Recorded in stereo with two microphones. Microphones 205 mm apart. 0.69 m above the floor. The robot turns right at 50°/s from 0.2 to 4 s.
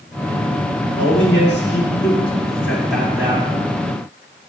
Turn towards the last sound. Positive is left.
turn(degrees=-125)